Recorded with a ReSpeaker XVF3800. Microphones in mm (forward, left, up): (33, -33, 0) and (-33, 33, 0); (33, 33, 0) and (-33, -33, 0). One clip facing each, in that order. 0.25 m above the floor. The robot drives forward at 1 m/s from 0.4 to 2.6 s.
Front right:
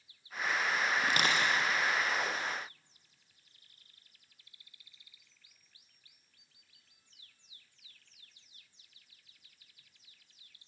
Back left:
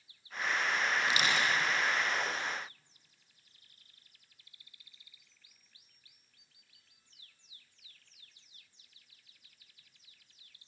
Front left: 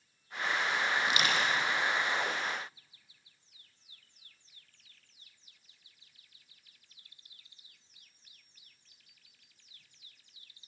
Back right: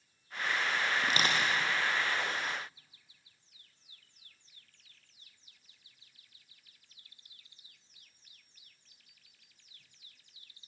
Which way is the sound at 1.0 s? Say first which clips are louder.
Front right 1 dB, front left 1 dB; 80° right.